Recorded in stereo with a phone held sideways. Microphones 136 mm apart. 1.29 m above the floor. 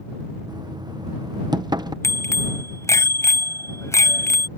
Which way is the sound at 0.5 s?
30° right (ahead or behind).